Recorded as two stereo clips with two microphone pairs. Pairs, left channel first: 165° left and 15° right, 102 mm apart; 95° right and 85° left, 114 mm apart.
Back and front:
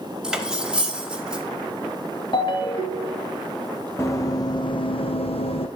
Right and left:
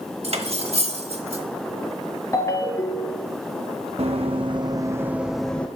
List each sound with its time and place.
0.2 s cutlery clinking: 70° left, 1.2 m
2.3 s a ringtone: 160° right, 1.4 m
4.0 s running footsteps: 105° left, 1.2 m; by 5.7 s 175° right, 1.0 m